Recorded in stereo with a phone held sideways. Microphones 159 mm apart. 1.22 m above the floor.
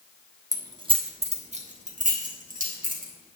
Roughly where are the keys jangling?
Right.